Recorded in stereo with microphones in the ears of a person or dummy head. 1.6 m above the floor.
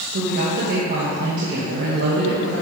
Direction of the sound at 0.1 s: 55° right (ahead or behind).